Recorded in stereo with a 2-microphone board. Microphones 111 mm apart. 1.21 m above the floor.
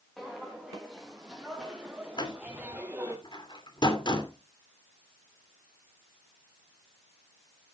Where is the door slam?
45° left (ahead or behind), 2.5 m.